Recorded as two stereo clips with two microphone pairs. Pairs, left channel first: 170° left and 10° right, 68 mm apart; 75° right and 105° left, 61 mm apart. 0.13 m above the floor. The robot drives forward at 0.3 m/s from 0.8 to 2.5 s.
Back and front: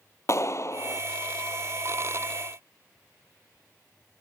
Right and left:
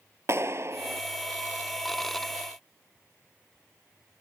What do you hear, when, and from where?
0.3 s a clap: 135° left; by 1.0 s 140° left